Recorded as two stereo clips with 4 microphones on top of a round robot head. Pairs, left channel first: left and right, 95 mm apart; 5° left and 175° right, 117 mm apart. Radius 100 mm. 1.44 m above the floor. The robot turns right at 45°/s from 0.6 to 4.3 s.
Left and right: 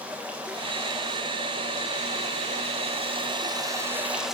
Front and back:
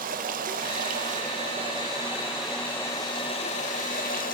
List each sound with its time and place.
0.0 s running water: 170° right, 1.5 m; by 4.3 s 5° right, 1.5 m